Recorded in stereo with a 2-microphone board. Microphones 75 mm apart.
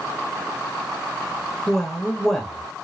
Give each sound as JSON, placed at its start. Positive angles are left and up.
{"t": 1.7, "sound": "a man speaking", "side_deg": 5, "distance_m": 1.0}